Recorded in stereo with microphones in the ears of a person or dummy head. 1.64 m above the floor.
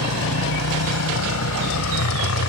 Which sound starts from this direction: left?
A motorcycle, at 0.0 s.